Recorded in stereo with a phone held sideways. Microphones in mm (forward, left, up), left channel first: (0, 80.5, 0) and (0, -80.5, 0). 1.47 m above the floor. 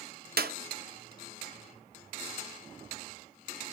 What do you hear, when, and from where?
0.4 s a clap: 75° right (ahead or behind), 0.7 m